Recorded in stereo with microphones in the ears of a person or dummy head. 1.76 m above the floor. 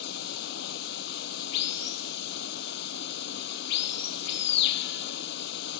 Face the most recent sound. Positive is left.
turn(degrees=65)  # may be behind; listen again after turning